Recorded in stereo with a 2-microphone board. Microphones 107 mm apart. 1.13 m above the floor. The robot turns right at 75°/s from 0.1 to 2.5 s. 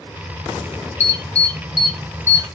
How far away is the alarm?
About 1.5 m.